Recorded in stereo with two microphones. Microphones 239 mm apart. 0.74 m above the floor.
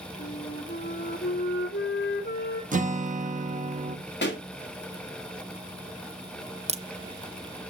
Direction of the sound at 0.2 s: 50° left (ahead or behind).